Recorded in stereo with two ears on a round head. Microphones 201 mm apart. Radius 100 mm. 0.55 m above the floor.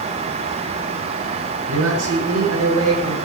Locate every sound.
1.7 s a man speaking: 70° right (ahead or behind), 6.5 m; by 3.2 s 75° right (ahead or behind), 7 m